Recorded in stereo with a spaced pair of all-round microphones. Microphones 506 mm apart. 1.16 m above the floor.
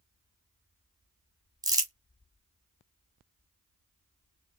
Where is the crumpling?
5° right (ahead or behind), 0.9 m.